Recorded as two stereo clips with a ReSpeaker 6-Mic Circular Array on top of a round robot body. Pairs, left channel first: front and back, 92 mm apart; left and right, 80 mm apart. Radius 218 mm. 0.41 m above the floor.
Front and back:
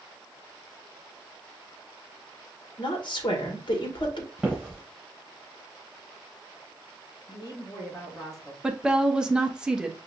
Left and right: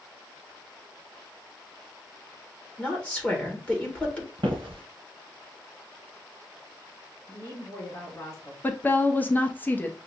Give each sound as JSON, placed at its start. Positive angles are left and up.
{"t": 2.8, "sound": "a woman speaking", "azimuth_deg": 20, "distance_m": 1.6}
{"t": 4.4, "sound": "footsteps", "azimuth_deg": -90, "distance_m": 0.8}
{"t": 7.3, "sound": "a woman speaking", "azimuth_deg": 45, "distance_m": 3.5}
{"t": 8.6, "sound": "a woman speaking", "azimuth_deg": 110, "distance_m": 0.9}